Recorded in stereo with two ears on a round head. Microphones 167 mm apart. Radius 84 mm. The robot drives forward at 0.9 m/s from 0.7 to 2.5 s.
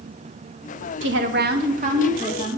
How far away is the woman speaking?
About 1.0 m.